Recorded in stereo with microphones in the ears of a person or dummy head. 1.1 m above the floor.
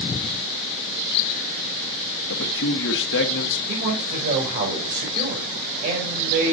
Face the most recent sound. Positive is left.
turn(degrees=-40)  # may be behind; listen again after turning